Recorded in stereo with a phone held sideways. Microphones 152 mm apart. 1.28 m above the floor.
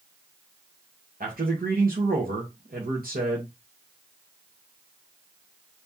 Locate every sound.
1.2 s a man speaking: 70° right (ahead or behind), 1.2 m